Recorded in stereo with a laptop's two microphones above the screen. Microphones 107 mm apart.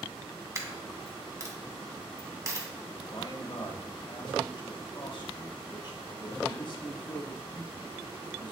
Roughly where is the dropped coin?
Right.